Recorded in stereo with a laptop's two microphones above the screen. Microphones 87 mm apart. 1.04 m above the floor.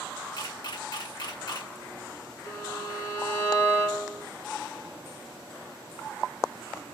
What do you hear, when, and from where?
0.4 s a camera shutter: 55° left (ahead or behind), 1.3 m
2.5 s a violin: 35° left (ahead or behind), 1.2 m